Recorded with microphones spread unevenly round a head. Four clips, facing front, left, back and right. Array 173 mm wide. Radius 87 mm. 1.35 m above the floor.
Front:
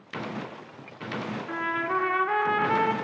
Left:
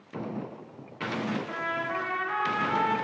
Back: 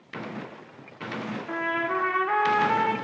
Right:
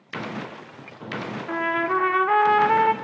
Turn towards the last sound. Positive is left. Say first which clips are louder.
# right 8 dB, back 1 dB
turn(degrees=-110)